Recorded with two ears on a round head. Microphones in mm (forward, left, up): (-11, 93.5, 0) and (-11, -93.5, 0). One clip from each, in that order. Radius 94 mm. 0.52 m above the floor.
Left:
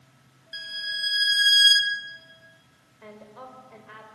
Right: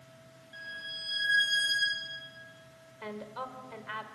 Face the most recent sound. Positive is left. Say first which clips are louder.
# right 4 dB
turn(degrees=-45)  # may be behind; listen again after turning